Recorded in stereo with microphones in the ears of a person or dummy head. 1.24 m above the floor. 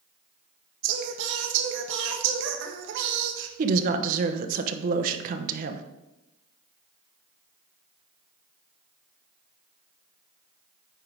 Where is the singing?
75° right (ahead or behind), 1.3 m.